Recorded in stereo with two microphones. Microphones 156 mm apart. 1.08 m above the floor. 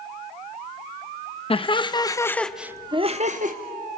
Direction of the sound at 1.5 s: 35° left (ahead or behind).